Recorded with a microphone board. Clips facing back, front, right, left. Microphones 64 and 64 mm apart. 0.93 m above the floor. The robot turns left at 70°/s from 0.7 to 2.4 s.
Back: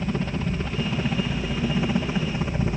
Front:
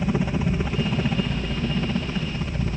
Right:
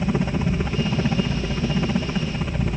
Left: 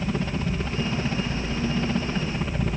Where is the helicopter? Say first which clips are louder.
Front 3 dB, right 4 dB; 55° right; by 2.8 s 170° right.